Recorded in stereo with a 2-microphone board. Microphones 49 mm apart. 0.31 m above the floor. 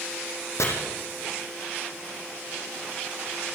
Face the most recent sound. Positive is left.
turn(degrees=80)